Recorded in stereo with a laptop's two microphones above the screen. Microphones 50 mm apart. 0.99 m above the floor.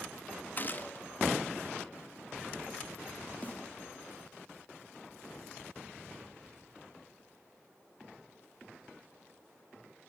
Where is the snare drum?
35° left (ahead or behind), 2 m.